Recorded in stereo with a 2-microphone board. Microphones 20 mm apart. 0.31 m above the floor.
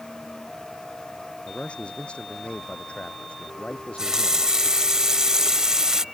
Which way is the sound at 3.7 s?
35° right (ahead or behind).